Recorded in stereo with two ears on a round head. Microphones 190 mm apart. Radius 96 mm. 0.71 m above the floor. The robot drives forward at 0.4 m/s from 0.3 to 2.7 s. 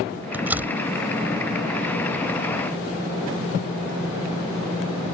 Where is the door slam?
10° right (ahead or behind).